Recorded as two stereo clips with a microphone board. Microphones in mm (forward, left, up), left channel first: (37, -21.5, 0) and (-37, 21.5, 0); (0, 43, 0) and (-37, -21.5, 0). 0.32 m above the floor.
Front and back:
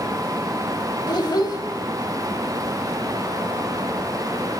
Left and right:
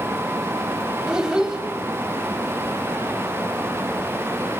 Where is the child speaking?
45° right, 0.9 m.